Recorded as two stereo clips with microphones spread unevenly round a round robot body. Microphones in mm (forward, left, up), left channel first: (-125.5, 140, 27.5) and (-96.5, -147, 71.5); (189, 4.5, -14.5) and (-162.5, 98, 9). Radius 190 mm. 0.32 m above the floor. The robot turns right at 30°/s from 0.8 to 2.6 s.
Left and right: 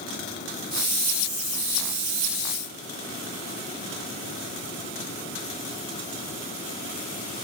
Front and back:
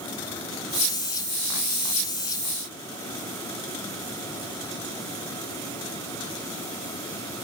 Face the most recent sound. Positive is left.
No sound to turn to.